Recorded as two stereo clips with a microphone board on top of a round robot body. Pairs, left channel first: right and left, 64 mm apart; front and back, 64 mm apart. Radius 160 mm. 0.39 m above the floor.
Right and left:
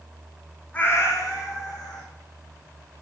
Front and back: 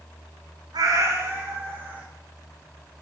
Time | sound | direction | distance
0.7 | a cat meowing | 160° right | 0.6 m